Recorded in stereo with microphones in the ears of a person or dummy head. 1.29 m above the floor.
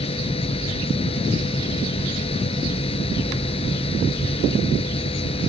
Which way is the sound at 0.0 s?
25° left (ahead or behind).